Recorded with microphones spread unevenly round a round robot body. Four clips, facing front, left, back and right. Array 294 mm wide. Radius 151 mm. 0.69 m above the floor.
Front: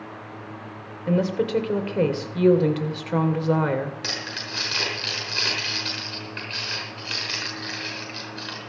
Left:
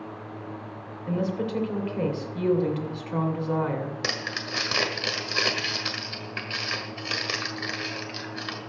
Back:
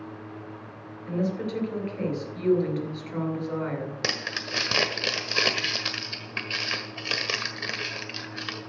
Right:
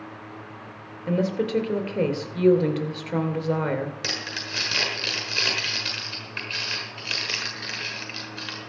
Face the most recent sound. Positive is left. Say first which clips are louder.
# left 2 dB, back 1 dB
turn(degrees=175)